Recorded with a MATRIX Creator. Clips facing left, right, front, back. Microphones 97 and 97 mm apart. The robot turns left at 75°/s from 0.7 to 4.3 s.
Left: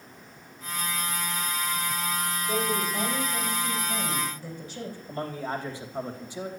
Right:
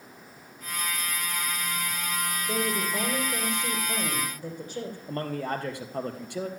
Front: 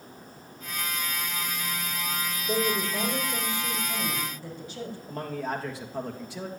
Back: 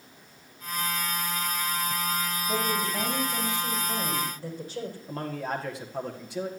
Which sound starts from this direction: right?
A man speaking, at 5.1 s.